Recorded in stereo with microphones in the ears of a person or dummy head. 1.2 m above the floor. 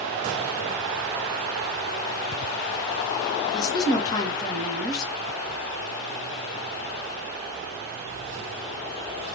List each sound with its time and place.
3.5 s a woman speaking: 25° left (ahead or behind), 0.9 m